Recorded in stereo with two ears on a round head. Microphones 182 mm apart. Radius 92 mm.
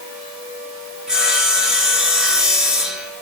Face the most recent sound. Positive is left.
turn(degrees=-5)  # may be behind; listen again after turning